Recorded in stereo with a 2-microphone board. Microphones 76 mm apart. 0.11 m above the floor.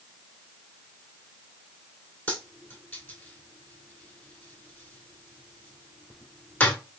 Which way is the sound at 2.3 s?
20° left (ahead or behind).